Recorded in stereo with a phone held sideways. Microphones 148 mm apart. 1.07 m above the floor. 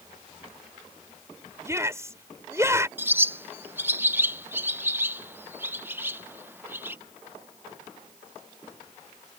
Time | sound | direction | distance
1.6 | a shout | 20° right (ahead or behind) | ?
3.0 | a bird | 15° right (ahead or behind) | ?